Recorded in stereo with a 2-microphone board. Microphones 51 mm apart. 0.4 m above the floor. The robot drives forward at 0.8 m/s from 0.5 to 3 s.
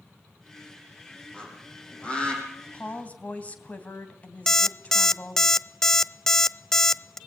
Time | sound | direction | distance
1.3 | a bird | 20° left (ahead or behind) | 6 m
2.7 | a woman speaking | 30° left (ahead or behind) | 2.5 m
4.5 | an alarm clock | 10° left (ahead or behind) | 0.6 m